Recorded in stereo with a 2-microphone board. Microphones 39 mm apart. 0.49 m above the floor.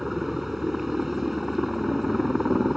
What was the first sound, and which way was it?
A helicopter, 5° right (ahead or behind).